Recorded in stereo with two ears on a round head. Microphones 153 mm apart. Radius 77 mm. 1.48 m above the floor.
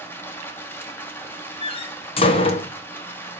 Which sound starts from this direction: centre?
Running water, at 0.0 s.